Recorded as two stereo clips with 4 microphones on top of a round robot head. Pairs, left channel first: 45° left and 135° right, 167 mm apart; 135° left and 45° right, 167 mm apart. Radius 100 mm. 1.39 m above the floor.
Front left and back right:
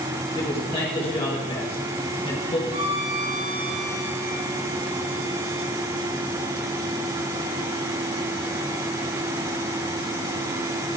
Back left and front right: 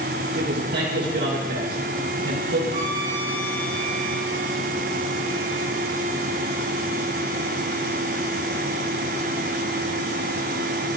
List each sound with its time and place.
0.3 s a man speaking: 15° right, 1.8 m
2.7 s a violin: 100° right, 6.5 m